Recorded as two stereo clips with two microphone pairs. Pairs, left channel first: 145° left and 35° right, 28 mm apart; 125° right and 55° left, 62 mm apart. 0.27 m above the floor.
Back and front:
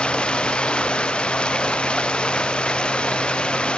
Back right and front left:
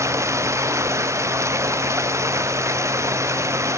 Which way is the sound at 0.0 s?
95° left.